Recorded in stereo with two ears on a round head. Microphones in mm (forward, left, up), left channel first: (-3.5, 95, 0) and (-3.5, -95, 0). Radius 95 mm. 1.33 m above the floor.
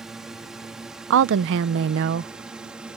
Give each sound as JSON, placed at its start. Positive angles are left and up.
{"t": 0.0, "sound": "a drone", "side_deg": 0}
{"t": 1.1, "sound": "a woman speaking", "side_deg": -65}